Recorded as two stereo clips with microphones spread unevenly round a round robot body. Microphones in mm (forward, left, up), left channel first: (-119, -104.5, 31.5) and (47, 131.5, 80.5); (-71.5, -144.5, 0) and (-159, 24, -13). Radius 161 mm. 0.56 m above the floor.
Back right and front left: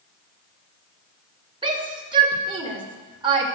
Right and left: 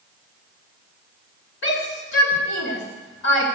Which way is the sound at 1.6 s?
25° right.